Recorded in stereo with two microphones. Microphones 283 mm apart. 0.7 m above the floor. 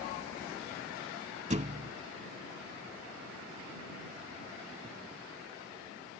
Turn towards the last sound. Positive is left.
turn(degrees=-25)  # may be behind; listen again after turning